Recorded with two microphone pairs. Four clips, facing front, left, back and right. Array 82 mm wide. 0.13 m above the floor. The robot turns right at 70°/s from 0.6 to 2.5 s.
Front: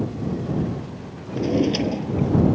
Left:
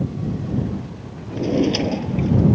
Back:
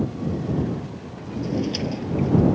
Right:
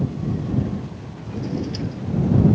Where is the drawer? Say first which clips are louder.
Left 8 dB, front 5 dB; 30° left; by 2.6 s 115° left.